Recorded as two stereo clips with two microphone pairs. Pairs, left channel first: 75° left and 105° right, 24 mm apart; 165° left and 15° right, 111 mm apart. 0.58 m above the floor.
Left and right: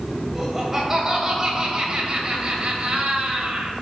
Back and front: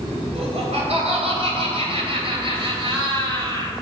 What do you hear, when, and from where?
0.3 s laughter: 25° right, 3 m; by 3.7 s 65° right, 3 m